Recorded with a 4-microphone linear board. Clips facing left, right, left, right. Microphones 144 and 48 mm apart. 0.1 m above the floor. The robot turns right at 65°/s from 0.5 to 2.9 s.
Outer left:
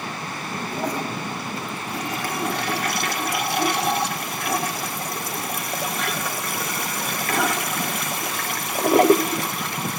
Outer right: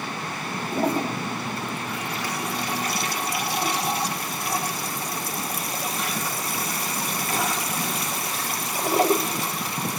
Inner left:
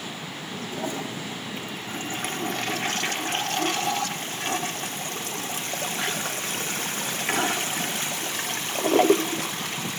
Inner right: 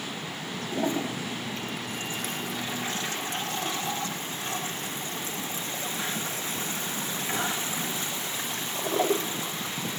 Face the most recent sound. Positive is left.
turn(degrees=100)